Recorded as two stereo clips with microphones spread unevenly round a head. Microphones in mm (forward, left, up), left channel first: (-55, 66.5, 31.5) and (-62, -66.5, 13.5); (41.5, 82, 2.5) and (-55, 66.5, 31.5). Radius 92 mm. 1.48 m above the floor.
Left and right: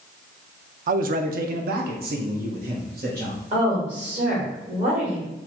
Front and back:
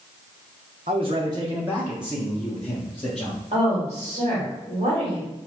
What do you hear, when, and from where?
0.9 s a man speaking: 120° right, 0.6 m; by 3.4 s 70° right, 1.6 m
3.5 s a woman speaking: 125° right, 2.5 m